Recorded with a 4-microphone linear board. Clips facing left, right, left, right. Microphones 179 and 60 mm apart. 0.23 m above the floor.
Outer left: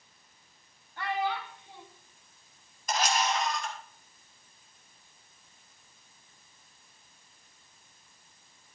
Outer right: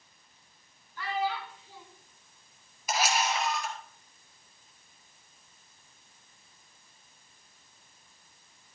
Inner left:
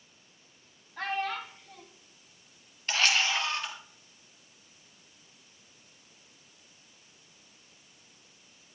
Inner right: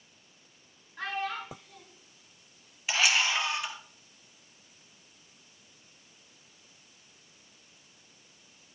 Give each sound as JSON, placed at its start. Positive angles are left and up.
{"t": 1.0, "sound": "a child speaking", "side_deg": 65, "distance_m": 3.0}
{"t": 2.9, "sound": "a camera shutter", "side_deg": -10, "distance_m": 2.5}